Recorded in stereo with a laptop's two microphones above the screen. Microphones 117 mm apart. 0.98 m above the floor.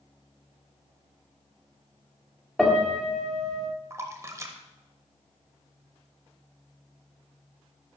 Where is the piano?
5° left (ahead or behind), 1.9 m.